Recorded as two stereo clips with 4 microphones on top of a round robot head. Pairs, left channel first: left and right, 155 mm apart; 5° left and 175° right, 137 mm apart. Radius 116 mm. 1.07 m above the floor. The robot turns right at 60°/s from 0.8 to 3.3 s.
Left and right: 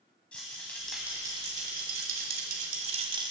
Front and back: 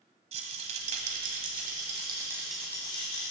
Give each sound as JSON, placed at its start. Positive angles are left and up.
{"t": 0.3, "sound": "a rattle", "azimuth_deg": 175, "distance_m": 1.2}